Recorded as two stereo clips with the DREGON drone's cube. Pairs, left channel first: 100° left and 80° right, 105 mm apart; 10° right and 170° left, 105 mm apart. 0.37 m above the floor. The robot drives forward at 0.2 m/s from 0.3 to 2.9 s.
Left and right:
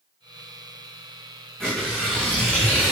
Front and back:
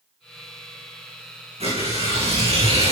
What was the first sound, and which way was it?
Tearing paper, 175° right.